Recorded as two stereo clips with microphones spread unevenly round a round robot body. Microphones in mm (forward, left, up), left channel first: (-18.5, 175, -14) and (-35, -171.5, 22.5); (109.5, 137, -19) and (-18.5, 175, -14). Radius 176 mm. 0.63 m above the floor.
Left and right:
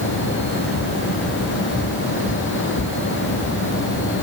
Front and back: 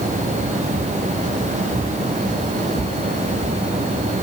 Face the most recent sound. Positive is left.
No sound to turn to.